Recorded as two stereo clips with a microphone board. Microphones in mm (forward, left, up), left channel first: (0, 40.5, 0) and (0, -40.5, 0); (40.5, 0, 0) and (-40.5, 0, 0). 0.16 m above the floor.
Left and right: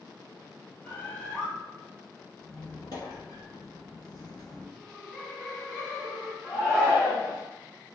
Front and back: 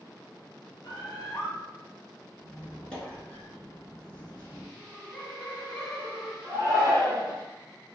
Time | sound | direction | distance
0.8 | a bird | 30° left | 1.1 m
2.4 | a squeak | 75° left | 1.4 m
4.8 | laughter | 5° right | 1.7 m
6.4 | a shout | 165° left | 1.8 m